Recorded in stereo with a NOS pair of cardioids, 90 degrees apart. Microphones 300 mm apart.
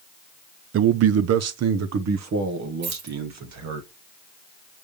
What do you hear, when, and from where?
0.7 s a man speaking: 45° right, 0.6 m; by 3.8 s 65° right, 2.5 m
2.8 s keys jangling: 65° right, 2.5 m